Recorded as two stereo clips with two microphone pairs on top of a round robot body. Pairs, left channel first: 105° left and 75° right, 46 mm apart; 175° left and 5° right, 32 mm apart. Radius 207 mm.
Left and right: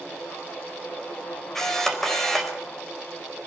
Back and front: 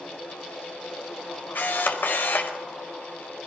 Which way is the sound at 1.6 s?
175° right.